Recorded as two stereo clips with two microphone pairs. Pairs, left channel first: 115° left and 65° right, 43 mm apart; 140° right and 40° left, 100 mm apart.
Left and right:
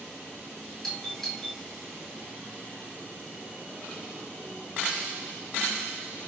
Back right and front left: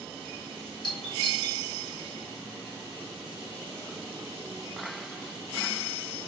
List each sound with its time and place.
0.8 s a doorbell: 165° right, 2.5 m